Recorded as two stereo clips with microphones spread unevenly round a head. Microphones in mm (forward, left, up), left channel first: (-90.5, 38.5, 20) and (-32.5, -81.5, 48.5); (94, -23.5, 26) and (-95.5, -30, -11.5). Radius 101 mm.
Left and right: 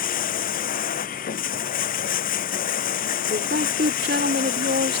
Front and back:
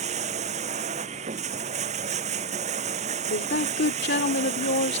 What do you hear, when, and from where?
0.0 s running water: 120° left
3.3 s a woman speaking: 35° right